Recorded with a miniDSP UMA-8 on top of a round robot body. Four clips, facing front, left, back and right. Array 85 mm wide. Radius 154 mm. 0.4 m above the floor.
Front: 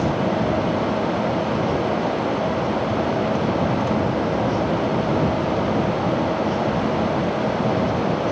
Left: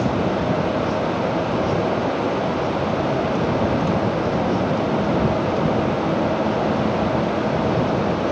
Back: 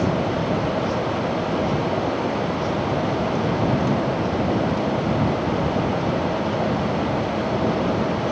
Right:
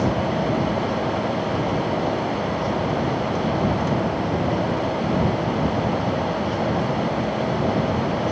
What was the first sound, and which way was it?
Only background noise.